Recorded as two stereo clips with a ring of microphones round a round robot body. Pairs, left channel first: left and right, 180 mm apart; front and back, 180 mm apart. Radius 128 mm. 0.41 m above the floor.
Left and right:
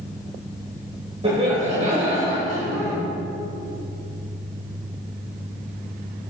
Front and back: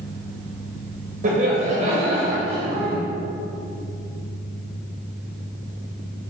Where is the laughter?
145° right, 2 m; by 3.0 s 115° right, 2.5 m.